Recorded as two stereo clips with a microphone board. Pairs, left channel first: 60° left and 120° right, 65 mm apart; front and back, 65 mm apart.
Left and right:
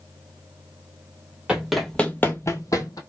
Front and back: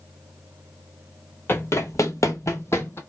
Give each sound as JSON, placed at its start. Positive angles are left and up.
{"t": 1.5, "sound": "running footsteps", "azimuth_deg": -50, "distance_m": 0.6}